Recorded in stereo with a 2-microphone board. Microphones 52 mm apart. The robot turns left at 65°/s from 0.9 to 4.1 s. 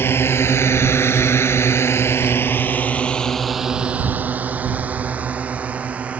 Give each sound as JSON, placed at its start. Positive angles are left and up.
{"t": 0.0, "sound": "a drone", "side_deg": 50}